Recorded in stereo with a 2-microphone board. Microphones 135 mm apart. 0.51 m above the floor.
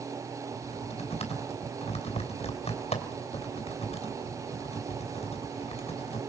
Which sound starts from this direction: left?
Typing on a keyboard, at 0.5 s.